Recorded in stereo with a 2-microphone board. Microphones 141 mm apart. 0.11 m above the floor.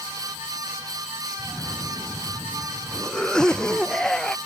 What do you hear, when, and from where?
1.4 s a cough: 5° left (ahead or behind)